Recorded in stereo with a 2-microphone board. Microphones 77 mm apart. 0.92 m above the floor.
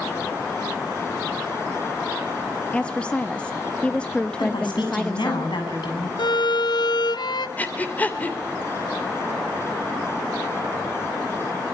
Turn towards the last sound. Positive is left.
turn(degrees=20)  # may be behind; listen again after turning